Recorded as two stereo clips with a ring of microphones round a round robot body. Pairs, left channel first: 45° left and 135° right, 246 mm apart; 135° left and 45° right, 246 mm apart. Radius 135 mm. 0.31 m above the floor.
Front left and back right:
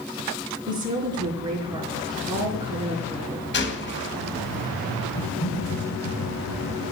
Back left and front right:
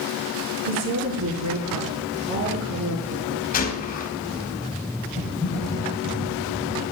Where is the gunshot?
85° left, 2.5 m.